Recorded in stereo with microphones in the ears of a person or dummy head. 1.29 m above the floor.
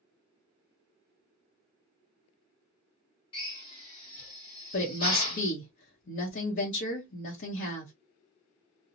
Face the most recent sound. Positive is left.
turn(degrees=50)  # may be behind; listen again after turning